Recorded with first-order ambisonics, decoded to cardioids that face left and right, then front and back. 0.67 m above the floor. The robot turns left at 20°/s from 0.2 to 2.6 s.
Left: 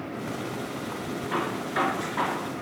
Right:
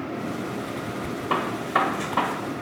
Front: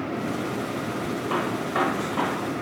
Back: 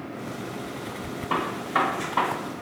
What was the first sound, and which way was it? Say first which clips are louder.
A gunshot: right 5 dB, back 2 dB; 90° right.